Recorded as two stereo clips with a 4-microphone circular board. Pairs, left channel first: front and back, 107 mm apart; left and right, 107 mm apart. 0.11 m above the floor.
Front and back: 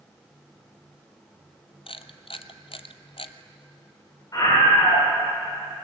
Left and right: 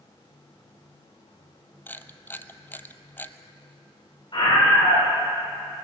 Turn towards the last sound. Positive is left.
turn(degrees=55)